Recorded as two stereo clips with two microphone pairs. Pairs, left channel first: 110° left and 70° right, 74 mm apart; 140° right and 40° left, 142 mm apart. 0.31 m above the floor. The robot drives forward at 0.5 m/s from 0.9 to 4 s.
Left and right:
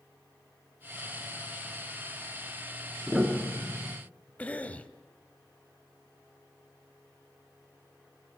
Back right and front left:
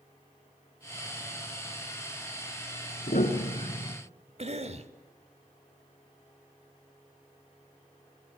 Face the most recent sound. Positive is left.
turn(degrees=45)